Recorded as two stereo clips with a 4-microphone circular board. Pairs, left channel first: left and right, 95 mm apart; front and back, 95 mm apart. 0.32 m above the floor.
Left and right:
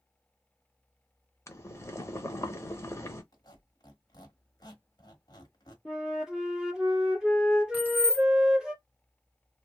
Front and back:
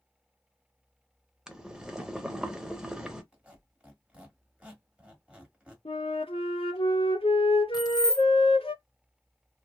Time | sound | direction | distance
1.5 | boiling | 100° left | 0.7 m
3.3 | a squeak | 105° left | 1.2 m
5.8 | a flute | 5° right | 1.5 m
7.7 | keys jangling | 30° right | 1.0 m